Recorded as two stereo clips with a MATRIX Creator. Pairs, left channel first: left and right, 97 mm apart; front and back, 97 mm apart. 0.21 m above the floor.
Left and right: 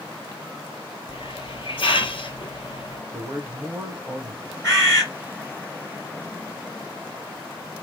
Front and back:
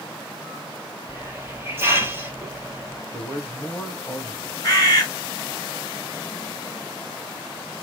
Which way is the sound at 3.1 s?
45° right.